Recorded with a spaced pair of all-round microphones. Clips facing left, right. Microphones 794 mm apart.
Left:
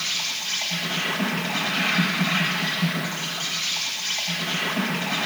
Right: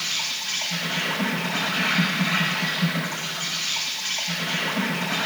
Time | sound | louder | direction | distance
0.0 | an insect | even | 5° right (ahead or behind) | 6.5 m